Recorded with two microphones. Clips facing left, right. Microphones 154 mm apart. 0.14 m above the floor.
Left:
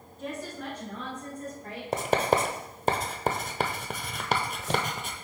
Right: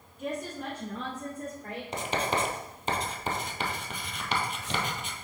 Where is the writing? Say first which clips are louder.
Left 6 dB; 50° left (ahead or behind), 0.7 m.